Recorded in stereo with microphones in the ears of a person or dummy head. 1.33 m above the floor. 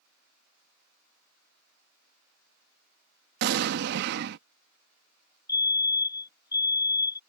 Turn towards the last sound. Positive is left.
turn(degrees=15)  # may be behind; listen again after turning